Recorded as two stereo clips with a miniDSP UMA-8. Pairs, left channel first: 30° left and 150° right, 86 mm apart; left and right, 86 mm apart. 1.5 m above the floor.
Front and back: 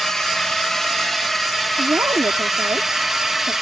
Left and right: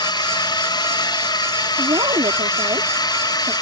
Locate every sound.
0.0 s a drone: 115° left; by 3.6 s 125° left
1.8 s a woman speaking: 100° right